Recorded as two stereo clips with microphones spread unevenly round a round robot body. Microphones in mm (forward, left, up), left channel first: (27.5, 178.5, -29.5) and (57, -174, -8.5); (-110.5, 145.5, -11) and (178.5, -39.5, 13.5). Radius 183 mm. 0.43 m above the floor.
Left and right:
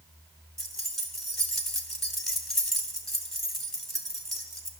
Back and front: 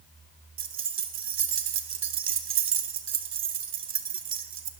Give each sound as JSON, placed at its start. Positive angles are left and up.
{"t": 0.6, "sound": "keys jangling", "azimuth_deg": 10, "distance_m": 1.0}